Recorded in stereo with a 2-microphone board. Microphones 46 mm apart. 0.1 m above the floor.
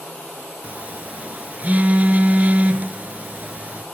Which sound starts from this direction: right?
A phone buzzing, at 0.6 s.